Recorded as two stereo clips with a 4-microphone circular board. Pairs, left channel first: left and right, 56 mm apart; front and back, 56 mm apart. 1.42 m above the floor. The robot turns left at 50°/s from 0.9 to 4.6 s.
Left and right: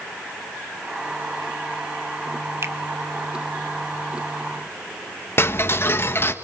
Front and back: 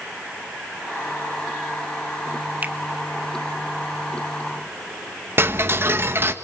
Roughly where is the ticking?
Behind left.